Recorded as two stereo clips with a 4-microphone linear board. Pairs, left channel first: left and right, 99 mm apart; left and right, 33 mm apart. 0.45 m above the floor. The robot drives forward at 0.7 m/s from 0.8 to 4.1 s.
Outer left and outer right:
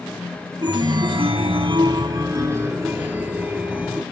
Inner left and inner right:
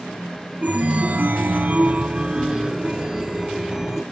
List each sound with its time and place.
0.6 s a chime: 40° right (ahead or behind), 0.7 m; by 4.0 s 15° right (ahead or behind), 1.9 m